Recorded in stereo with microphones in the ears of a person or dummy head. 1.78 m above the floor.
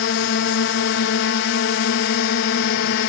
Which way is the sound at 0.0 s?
80° left.